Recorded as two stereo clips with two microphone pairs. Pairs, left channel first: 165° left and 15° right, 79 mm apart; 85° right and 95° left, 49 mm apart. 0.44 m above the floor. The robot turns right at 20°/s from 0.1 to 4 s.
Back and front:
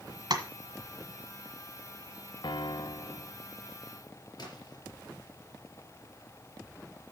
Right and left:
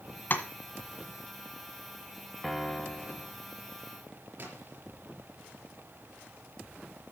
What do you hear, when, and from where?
0.3 s tapping: 40° right, 1.5 m; by 0.4 s 35° right, 1.5 m
2.4 s a piano: 170° right, 0.6 m; by 3.3 s 155° right, 0.6 m
4.4 s a splash: 135° left, 4 m